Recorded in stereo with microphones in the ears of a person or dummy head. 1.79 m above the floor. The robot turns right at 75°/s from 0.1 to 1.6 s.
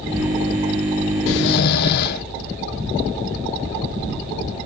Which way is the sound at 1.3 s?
80° left.